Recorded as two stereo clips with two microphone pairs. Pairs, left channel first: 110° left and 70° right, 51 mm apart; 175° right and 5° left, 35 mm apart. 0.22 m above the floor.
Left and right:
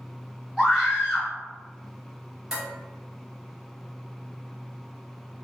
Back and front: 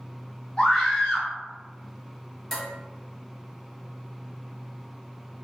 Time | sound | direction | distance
0.6 | a scream | 155° right | 1.0 m
2.5 | dishes clattering | 120° right | 0.9 m